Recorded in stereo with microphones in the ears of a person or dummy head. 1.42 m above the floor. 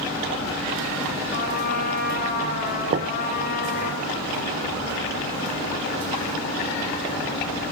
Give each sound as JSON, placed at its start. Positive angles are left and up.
{"t": 1.3, "sound": "a trumpet", "side_deg": 55, "distance_m": 6.5}
{"t": 2.9, "sound": "knocking", "side_deg": -35, "distance_m": 0.6}